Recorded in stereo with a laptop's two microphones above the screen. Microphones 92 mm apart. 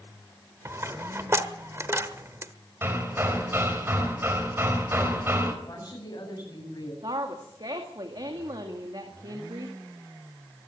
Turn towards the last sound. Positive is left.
turn(degrees=-55)  # may be behind; listen again after turning